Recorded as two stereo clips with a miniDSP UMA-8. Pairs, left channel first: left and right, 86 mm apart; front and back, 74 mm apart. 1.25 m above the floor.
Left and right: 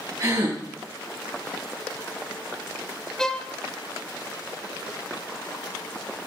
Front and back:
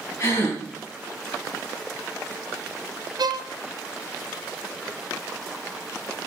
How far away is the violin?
About 0.5 m.